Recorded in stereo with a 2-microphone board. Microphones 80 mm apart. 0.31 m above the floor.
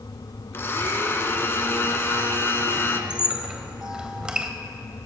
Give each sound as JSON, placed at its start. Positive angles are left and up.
{"t": 0.5, "sound": "a blender", "side_deg": 35, "distance_m": 0.8}
{"t": 3.1, "sound": "a squeak", "side_deg": -10, "distance_m": 0.7}